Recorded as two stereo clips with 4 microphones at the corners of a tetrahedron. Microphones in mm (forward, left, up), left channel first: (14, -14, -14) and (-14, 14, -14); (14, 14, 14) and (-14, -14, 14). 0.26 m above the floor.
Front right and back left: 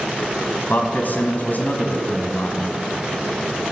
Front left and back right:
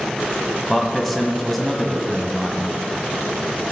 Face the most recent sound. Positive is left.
turn(degrees=-45)